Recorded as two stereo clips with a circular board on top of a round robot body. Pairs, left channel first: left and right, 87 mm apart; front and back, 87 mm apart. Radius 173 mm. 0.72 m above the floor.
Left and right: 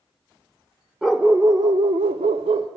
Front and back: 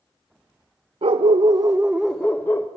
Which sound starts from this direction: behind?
A dog barking, at 1.0 s.